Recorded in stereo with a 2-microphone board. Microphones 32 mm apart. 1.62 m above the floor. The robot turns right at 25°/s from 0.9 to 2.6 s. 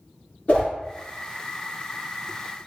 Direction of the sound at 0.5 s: 45° left (ahead or behind).